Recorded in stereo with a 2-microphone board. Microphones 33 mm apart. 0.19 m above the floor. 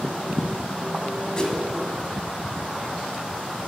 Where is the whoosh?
20° left (ahead or behind), 1.3 m.